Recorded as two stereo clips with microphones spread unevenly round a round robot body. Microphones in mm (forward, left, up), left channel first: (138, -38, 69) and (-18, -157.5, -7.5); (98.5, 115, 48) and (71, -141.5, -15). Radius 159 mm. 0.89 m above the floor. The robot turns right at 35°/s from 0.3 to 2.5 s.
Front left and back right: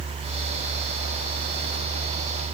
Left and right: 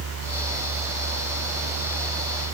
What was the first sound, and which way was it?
Only background noise.